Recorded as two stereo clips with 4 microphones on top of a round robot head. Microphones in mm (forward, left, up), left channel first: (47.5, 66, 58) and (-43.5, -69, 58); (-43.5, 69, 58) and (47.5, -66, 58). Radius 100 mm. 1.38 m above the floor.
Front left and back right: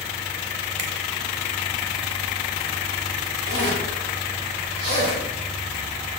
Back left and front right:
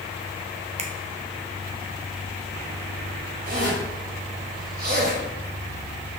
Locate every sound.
0.8 s a finger snap: 110° right, 1.1 m
3.5 s a zipper: 95° right, 3.5 m